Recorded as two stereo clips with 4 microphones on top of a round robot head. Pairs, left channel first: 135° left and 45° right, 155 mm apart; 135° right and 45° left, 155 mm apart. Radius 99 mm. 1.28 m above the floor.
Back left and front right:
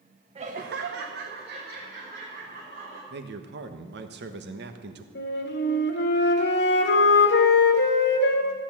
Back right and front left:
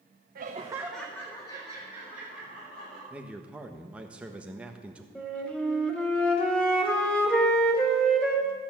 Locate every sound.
0.3 s laughter: 10° left, 0.9 m; by 3.0 s 85° right, 4 m
3.1 s a man speaking: 40° right, 1.3 m
5.2 s a flute: 140° left, 2 m